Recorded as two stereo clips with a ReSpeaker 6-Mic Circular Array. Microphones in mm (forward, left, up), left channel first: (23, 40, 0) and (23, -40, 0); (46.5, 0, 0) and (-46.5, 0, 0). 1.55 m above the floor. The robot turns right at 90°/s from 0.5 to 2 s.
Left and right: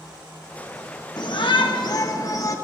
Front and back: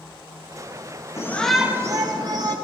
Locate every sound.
1.2 s a shout: 60° left, 2 m; by 2.5 s 135° left, 2 m